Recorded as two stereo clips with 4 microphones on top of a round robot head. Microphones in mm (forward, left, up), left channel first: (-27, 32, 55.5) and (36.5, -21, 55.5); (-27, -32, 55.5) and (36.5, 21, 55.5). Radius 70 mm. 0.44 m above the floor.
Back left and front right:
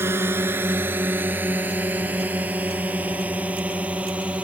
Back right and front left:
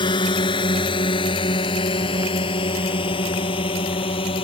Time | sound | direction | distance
0.0 | a drone | 105° right | ?